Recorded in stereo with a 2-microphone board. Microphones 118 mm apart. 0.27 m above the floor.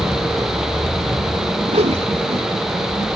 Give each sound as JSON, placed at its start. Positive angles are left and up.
{"t": 1.7, "sound": "a whoosh", "side_deg": -65}